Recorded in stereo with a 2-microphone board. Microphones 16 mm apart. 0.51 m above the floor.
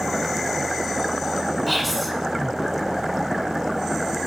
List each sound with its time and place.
1.7 s whispering: 5° left (ahead or behind), 2.5 m